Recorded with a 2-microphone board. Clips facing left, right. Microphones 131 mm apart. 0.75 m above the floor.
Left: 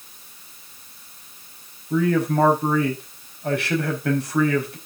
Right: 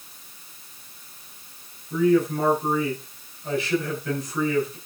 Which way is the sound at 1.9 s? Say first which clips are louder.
Right 1 dB; 75° left (ahead or behind).